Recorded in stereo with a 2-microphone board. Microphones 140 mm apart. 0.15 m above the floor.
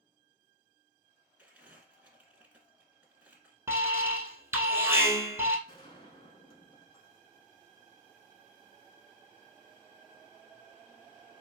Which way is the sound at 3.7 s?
15° right (ahead or behind).